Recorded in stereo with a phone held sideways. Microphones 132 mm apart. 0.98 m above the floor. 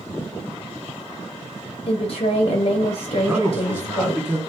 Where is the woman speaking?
50° left (ahead or behind), 0.5 m.